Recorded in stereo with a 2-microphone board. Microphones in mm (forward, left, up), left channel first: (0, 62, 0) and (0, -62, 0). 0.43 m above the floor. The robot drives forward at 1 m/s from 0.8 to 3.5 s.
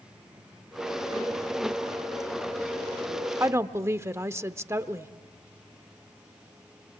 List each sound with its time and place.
3.4 s a woman speaking: 20° right (ahead or behind), 0.7 m